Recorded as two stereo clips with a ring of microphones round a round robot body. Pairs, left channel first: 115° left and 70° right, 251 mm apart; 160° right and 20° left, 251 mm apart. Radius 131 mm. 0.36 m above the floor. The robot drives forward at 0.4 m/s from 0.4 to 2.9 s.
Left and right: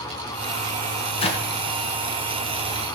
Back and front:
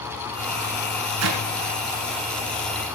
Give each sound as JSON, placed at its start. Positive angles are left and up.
{"t": 1.2, "sound": "a clap", "azimuth_deg": 45, "distance_m": 4.0}